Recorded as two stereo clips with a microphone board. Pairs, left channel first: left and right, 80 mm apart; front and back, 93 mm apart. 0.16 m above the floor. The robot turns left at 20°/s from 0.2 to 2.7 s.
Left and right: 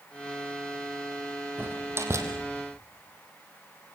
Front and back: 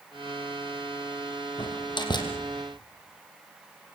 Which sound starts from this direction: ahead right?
A door slam, at 1.6 s.